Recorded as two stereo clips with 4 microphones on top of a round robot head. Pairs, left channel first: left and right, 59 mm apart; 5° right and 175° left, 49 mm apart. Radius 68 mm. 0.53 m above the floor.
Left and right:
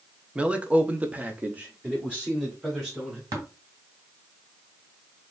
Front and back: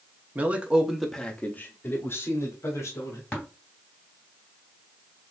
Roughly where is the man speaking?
Behind right.